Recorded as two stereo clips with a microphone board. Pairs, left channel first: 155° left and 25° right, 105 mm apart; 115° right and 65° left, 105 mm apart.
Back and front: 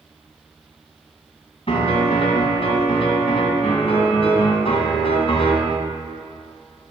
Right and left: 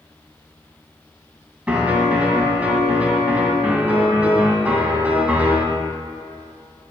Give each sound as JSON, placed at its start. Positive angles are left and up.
{"t": 1.7, "sound": "a piano", "azimuth_deg": 145, "distance_m": 1.9}